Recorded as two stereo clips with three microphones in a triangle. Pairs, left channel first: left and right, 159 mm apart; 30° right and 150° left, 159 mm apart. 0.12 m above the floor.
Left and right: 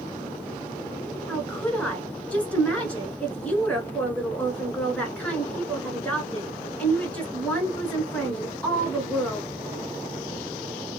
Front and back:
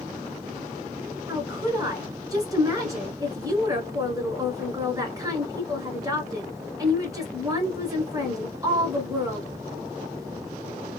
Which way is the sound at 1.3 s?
160° left.